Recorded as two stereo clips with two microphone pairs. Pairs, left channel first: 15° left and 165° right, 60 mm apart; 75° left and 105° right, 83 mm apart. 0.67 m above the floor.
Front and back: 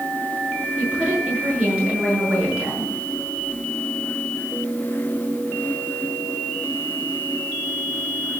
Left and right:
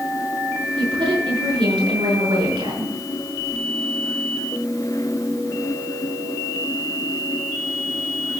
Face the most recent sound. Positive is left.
turn(degrees=-95)